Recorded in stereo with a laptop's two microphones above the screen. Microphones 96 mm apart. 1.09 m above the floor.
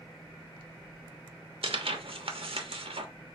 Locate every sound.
1.6 s tearing paper: 65° right (ahead or behind), 0.9 m